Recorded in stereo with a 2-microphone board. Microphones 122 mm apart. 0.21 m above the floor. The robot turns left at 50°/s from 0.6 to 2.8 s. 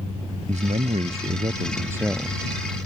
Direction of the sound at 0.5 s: 95° right.